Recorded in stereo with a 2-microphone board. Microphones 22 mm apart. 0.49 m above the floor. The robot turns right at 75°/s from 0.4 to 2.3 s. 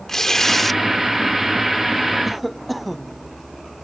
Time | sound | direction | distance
0.1 | tearing paper | 25° left (ahead or behind) | ?
2.2 | a cough | 5° right (ahead or behind) | ?